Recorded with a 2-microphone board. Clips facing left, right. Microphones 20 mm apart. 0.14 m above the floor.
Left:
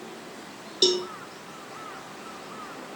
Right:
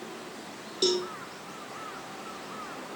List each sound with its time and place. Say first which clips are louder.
0.8 s a cowbell: left 4 dB; 40° left (ahead or behind), 1.6 m